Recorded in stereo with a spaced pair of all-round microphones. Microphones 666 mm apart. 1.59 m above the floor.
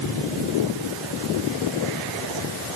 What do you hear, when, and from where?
Only background noise.